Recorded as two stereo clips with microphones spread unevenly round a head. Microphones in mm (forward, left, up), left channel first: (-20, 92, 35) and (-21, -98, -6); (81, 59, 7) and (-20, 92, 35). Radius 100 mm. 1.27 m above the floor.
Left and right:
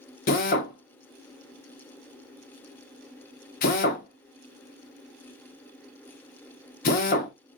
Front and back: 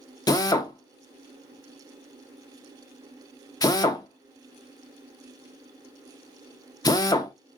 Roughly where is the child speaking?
I don't hear a child speaking.